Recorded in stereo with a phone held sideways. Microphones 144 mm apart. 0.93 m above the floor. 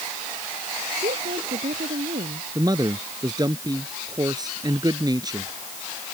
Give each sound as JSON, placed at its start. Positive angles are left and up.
{"t": 1.0, "sound": "a woman speaking", "side_deg": -85}
{"t": 2.5, "sound": "a man speaking", "side_deg": -25}